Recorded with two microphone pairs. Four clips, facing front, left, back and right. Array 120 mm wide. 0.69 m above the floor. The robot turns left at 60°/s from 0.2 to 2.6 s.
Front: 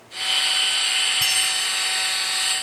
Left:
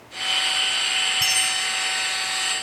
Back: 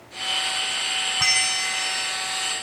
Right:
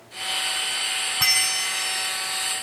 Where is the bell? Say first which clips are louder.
Left 1 dB, back 2 dB; 135° right; by 2.1 s 170° left.